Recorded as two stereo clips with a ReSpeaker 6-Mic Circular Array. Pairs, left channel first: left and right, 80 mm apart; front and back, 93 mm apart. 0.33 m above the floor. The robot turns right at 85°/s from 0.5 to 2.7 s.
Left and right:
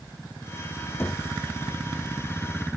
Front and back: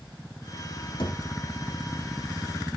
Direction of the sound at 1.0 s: 30° left.